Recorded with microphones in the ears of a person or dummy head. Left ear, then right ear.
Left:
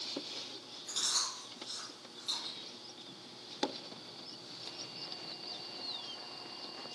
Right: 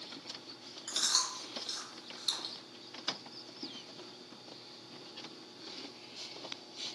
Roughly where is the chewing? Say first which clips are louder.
Right 3 dB; right.